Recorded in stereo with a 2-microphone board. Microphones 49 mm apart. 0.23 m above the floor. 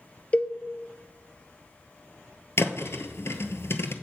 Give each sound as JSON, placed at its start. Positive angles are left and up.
{"t": 0.3, "sound": "a cowbell", "side_deg": 30, "distance_m": 0.9}
{"t": 2.6, "sound": "a thud", "side_deg": 60, "distance_m": 0.9}